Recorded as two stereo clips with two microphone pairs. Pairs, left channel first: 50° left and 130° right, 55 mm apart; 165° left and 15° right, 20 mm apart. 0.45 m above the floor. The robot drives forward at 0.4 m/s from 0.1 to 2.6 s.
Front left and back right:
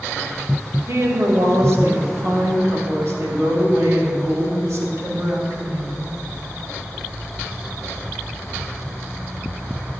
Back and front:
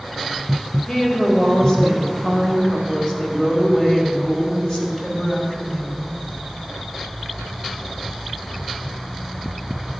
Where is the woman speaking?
140° right, 2.5 m; by 6.1 s 150° right, 3 m.